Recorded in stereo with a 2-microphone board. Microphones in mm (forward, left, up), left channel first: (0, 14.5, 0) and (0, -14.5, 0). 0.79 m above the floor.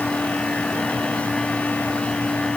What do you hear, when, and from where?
Only background noise.